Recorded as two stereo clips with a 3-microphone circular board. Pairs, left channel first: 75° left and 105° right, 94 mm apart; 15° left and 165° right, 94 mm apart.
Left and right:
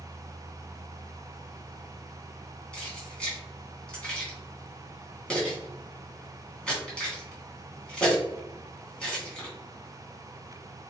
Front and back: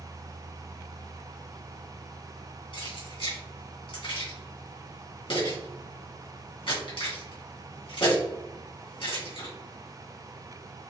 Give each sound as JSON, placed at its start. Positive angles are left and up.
{"t": 2.7, "sound": "keys jangling", "azimuth_deg": -5, "distance_m": 2.5}